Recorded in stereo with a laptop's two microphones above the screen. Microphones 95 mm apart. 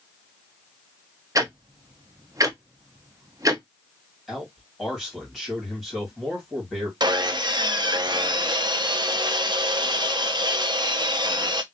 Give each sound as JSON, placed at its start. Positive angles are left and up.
{"t": 1.4, "sound": "ticking", "side_deg": -40, "distance_m": 0.5}
{"t": 4.3, "sound": "a man speaking", "side_deg": 5, "distance_m": 1.5}
{"t": 7.0, "sound": "sawing", "side_deg": -50, "distance_m": 0.5}